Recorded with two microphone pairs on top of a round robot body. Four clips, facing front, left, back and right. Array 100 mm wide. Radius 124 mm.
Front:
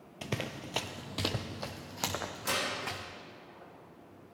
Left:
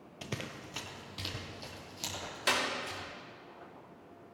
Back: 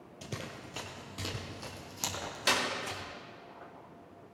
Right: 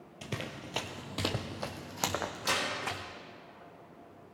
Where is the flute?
I don't hear a flute.